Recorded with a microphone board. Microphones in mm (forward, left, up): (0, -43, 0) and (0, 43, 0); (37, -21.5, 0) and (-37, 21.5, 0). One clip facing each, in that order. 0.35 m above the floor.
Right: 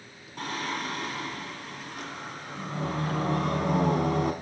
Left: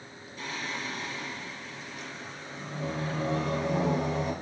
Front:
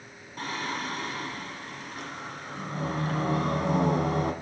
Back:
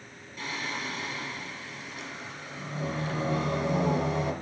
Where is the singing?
70° right, 1.2 m.